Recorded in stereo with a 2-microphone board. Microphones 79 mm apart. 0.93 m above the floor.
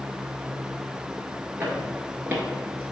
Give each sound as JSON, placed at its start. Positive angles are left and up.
{"t": 1.6, "sound": "footsteps", "side_deg": -20, "distance_m": 1.1}